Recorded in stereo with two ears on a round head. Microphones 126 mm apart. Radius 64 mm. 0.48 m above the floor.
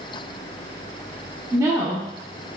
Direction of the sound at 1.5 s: 20° right (ahead or behind).